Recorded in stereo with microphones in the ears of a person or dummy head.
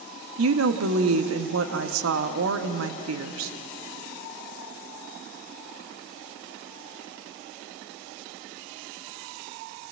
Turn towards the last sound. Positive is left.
turn(degrees=-85)